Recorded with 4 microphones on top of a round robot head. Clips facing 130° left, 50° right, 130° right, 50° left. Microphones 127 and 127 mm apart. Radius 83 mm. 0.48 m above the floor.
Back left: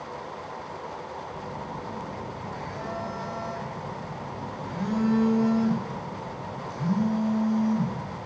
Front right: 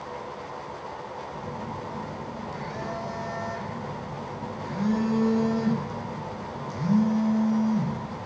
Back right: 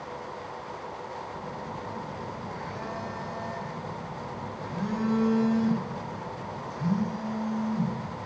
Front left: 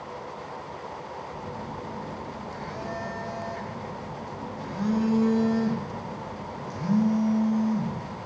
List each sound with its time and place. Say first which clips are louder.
1.3 s a phone buzzing: front right 1 dB, front left 1 dB; straight ahead, 0.9 m